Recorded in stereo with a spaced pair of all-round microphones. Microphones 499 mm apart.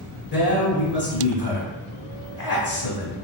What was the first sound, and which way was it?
A man speaking, 40° left (ahead or behind).